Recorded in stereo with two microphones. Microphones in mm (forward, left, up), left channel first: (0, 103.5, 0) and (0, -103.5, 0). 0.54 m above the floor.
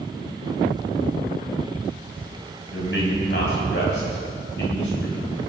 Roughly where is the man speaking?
Left.